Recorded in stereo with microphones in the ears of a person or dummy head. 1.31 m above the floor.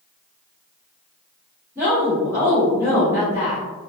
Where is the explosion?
No explosion in this recording.